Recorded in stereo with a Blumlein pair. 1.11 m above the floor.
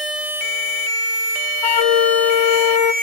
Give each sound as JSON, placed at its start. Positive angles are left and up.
{"t": 1.6, "sound": "a flute", "azimuth_deg": 50, "distance_m": 1.1}